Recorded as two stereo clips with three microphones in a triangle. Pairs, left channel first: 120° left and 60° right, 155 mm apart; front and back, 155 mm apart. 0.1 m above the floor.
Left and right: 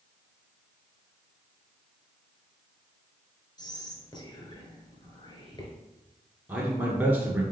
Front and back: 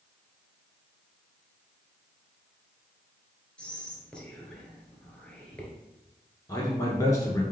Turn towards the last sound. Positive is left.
turn(degrees=-5)